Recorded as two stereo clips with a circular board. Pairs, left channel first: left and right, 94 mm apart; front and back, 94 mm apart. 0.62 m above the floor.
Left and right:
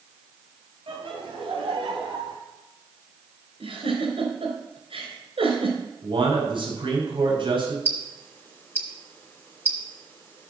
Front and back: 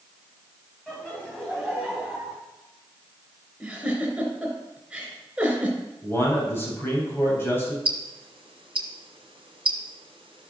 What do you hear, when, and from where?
0.9 s laughter: 80° right, 3.5 m; by 2.4 s 100° right, 4 m
3.6 s a giggle: 100° right, 3.5 m
6.0 s a man speaking: 65° right, 4 m
7.8 s ticking: 155° left, 2.5 m